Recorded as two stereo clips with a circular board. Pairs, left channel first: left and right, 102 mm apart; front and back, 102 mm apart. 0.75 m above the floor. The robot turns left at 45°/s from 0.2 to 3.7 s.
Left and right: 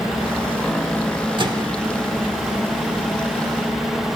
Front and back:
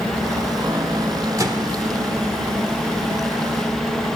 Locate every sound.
1.4 s a microwave: 125° right, 1.4 m; by 1.8 s 140° right, 1.4 m